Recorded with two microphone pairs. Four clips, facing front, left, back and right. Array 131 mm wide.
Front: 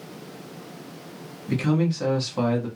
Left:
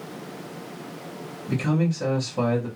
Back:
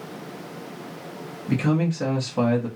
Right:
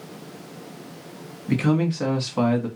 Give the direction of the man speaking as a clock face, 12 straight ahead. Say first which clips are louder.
Right 3 dB, back 1 dB; 3 o'clock.